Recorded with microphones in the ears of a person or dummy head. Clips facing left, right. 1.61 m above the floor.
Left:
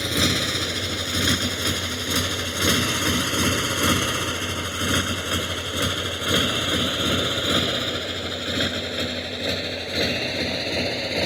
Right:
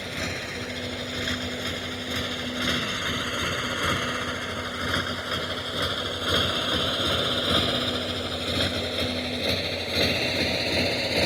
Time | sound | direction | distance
0.0 | a motorcycle | 75° left (ahead or behind) | ?